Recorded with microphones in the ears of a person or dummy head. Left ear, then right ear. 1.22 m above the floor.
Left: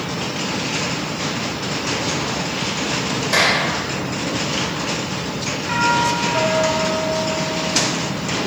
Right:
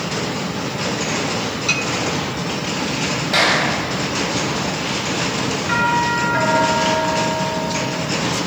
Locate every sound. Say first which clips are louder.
3.3 s a clap: even; 70° left (ahead or behind), 5 m
5.7 s a doorbell: even; 15° right (ahead or behind), 6 m